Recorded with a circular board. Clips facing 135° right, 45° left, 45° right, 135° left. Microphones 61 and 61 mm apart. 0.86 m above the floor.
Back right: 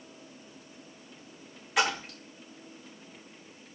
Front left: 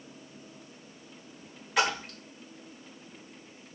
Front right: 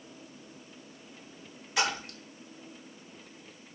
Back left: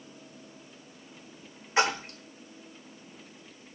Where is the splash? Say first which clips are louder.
Even, back left 4 dB; 140° left, 0.9 m.